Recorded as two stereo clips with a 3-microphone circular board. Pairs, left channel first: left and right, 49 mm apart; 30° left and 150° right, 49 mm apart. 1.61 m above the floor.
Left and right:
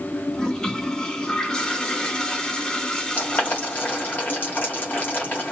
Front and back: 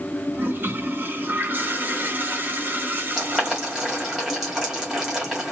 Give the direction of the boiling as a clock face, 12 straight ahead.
7 o'clock.